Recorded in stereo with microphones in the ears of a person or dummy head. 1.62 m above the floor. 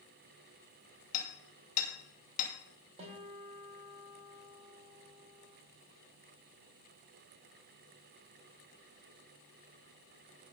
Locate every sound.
1.1 s hammering: 50° left (ahead or behind), 2.5 m
3.0 s a guitar: 40° right (ahead or behind), 2 m